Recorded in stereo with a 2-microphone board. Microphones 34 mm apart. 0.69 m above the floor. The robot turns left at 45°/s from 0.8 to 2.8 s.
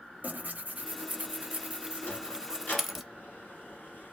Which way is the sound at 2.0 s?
70° left (ahead or behind).